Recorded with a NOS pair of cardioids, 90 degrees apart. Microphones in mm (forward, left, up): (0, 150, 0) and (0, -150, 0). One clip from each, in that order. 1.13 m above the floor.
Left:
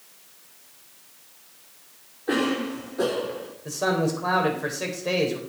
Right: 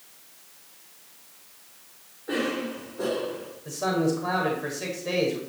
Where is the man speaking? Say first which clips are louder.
Left 1 dB; 35° left, 5 m.